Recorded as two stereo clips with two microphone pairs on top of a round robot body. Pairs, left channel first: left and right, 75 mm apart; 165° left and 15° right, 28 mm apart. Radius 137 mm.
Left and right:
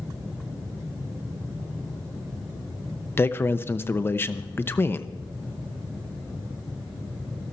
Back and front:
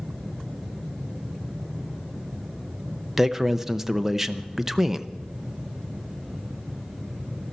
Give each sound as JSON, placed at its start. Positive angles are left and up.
{"t": 3.2, "sound": "a man speaking", "azimuth_deg": 50, "distance_m": 1.0}